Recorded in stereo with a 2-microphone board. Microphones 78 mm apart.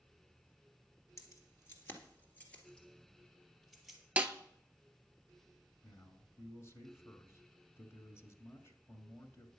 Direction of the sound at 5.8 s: 30° left (ahead or behind).